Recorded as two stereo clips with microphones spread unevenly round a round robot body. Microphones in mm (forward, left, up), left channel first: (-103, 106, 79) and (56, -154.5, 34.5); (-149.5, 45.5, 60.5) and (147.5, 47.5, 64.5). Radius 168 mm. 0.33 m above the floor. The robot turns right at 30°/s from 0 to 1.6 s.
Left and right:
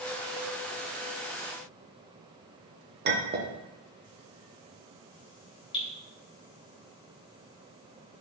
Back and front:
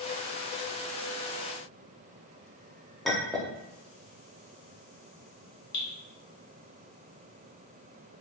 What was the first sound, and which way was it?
A clink, 90° right.